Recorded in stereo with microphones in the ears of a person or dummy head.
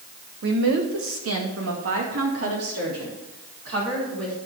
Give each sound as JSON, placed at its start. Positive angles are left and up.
{"t": 0.4, "sound": "a woman speaking", "side_deg": -65, "distance_m": 1.2}